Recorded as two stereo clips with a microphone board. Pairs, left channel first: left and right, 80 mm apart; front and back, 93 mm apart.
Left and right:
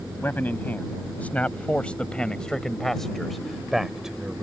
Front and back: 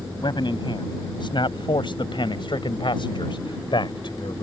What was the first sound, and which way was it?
A man speaking, 25° left.